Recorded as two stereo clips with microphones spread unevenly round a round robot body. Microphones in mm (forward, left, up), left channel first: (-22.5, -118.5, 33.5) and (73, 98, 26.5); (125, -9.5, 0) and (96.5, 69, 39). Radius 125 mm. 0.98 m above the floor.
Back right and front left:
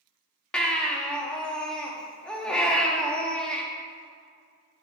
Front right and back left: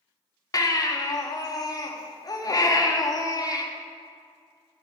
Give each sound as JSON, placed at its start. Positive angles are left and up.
{"t": 0.5, "sound": "a baby crying", "azimuth_deg": -25, "distance_m": 1.5}